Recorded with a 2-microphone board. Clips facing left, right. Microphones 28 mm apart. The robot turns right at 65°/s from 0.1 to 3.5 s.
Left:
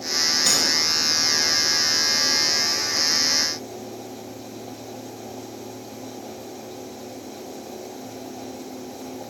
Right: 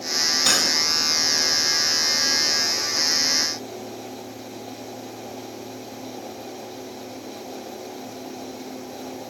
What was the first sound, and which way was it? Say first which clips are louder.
Cutlery clinking: right 3 dB; 35° right (ahead or behind).